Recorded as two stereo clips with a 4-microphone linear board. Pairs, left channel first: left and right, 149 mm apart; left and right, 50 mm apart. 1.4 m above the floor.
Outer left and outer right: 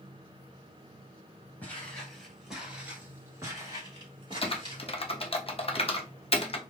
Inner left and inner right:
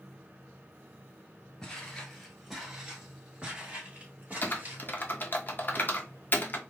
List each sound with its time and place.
1.6 s footsteps: 10° left (ahead or behind), 1.5 m; by 4.8 s 40° right (ahead or behind), 1.8 m
4.4 s typing on a keyboard: 40° left (ahead or behind), 0.5 m